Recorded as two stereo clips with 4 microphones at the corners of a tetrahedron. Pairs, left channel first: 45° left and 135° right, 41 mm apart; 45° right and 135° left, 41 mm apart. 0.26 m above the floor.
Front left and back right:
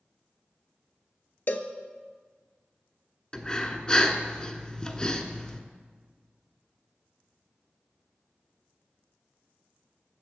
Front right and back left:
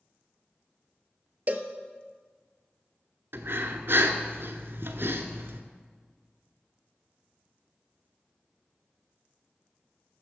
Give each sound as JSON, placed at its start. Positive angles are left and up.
{"t": 1.5, "sound": "a cowbell", "azimuth_deg": 85, "distance_m": 0.7}
{"t": 3.3, "sound": "breathing", "azimuth_deg": 115, "distance_m": 1.0}